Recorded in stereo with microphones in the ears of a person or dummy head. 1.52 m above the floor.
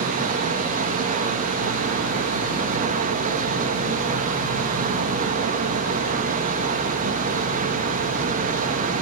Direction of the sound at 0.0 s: 50° right (ahead or behind).